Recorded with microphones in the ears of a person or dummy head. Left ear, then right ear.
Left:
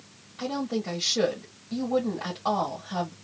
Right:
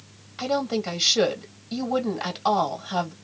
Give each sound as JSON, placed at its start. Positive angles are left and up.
{"t": 0.4, "sound": "a woman speaking", "side_deg": -55, "distance_m": 1.4}